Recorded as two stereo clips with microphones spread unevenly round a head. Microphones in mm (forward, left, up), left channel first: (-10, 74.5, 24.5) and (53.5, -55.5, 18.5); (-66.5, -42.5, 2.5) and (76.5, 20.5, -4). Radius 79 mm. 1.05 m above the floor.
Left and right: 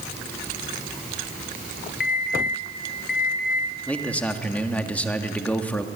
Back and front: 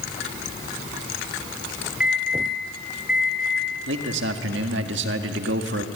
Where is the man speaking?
35° left, 1.8 m.